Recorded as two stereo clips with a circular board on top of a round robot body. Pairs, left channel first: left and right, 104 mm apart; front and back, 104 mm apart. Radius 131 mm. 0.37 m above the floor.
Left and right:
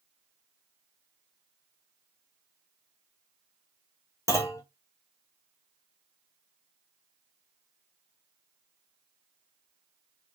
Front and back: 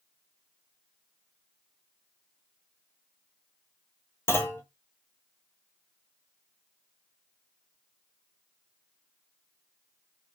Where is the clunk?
50° left, 1.1 m.